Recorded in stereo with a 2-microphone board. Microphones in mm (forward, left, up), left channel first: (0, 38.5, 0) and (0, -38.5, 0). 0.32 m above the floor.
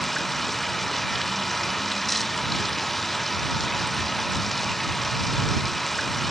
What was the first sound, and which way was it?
Running water, centre (ahead or behind).